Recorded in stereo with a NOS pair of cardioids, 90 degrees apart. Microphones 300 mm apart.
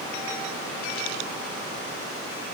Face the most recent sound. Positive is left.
No sound to turn to.